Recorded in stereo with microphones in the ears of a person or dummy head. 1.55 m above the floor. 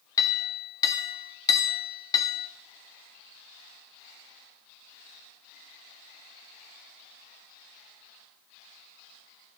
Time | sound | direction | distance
0.2 | a clink | 20° left (ahead or behind) | 1.6 m